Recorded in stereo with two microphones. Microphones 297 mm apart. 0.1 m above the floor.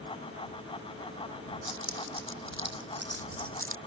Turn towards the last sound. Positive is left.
turn(degrees=-45)  # may be behind; listen again after turning